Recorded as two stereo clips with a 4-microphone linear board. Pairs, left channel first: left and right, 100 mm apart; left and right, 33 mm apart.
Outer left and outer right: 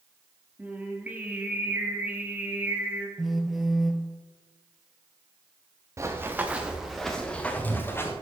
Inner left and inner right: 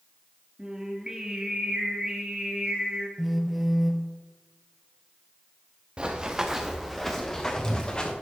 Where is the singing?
15° right (ahead or behind), 1.6 m.